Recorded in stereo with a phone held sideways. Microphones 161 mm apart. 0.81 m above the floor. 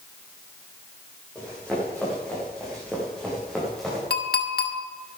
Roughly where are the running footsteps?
Centre.